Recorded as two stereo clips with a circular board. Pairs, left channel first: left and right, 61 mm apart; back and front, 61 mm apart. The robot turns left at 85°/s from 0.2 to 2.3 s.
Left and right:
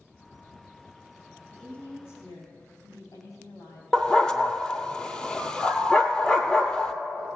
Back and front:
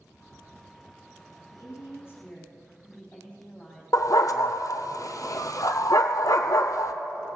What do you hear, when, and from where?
1.5 s a woman speaking: 175° left, 3.5 m; by 3.8 s 110° left, 3.5 m
3.9 s a dog barking: 165° left, 0.7 m